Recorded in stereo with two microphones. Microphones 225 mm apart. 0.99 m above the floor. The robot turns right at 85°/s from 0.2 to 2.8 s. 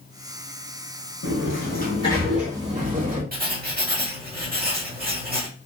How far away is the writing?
About 0.9 m.